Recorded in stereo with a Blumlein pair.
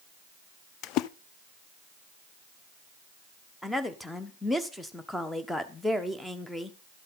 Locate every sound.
0.8 s a splash: 40° left, 0.5 m
3.6 s a woman speaking: 5° left, 1.2 m